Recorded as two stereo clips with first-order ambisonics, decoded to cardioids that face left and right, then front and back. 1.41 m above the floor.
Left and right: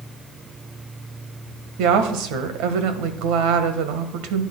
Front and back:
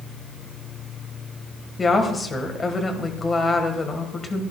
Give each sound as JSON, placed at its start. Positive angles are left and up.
{"t": 1.8, "sound": "a woman speaking", "azimuth_deg": -75, "distance_m": 1.4}